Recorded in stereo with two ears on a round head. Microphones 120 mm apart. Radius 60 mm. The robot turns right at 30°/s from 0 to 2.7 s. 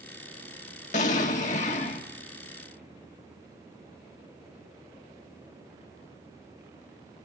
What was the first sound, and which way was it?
An explosion, 80° left.